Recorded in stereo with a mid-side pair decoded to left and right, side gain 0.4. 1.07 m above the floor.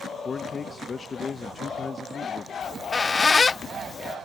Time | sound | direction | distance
0.2 | a man speaking | 40° left | ?
2.6 | a squeak | 35° left | ?